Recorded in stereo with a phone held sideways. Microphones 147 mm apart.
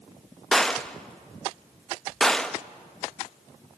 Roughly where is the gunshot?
Centre.